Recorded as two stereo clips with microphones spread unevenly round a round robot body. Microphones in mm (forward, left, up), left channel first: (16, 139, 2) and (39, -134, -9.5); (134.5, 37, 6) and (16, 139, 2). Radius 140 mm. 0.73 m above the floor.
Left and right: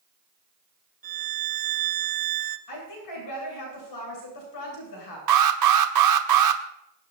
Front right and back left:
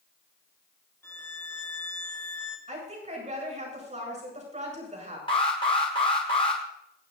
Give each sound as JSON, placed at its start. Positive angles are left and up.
{"t": 1.0, "sound": "a violin", "azimuth_deg": -115, "distance_m": 1.1}
{"t": 2.7, "sound": "a woman speaking", "azimuth_deg": 95, "distance_m": 8.5}
{"t": 5.3, "sound": "an alarm", "azimuth_deg": -115, "distance_m": 1.1}